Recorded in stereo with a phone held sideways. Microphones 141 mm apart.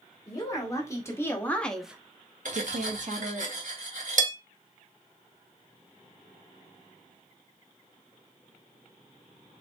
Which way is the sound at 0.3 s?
25° left (ahead or behind).